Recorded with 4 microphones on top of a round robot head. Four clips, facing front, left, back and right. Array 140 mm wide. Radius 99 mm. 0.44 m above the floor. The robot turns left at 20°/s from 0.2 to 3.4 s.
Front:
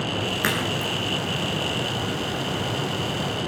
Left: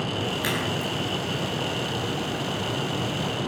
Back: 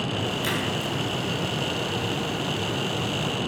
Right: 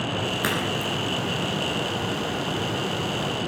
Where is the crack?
45° right, 9 m; by 0.9 s 55° right, 9 m.